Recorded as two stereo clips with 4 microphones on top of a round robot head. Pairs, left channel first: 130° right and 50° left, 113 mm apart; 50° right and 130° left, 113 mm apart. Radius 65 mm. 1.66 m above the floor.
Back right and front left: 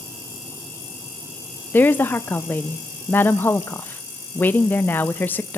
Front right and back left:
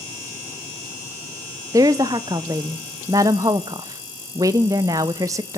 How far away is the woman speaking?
About 0.6 m.